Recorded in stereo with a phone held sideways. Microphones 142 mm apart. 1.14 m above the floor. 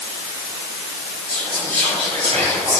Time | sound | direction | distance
1.3 | whispering | 45° right (ahead or behind) | 6 m